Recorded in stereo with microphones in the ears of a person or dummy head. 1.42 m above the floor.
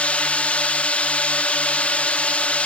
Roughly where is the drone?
Centre.